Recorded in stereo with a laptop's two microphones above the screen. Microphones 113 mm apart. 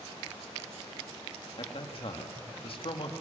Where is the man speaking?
55° left (ahead or behind), 1.9 m.